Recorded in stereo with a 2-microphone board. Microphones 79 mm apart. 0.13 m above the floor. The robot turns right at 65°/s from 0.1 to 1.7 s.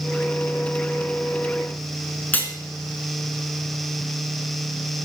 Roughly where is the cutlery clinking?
Left.